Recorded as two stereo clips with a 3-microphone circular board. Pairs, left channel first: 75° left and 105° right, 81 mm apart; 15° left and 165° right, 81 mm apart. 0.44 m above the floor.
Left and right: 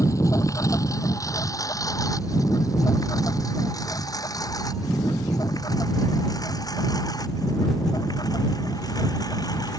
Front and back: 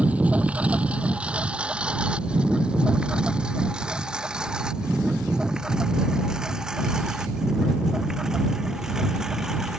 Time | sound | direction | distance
0.0 | a lawn mower | 125° left | ?